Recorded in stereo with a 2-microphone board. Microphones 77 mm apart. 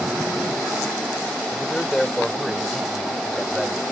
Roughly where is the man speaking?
Centre.